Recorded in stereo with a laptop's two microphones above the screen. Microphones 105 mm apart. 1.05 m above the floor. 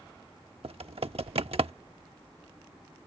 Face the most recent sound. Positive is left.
turn(degrees=-70)  # may be behind; listen again after turning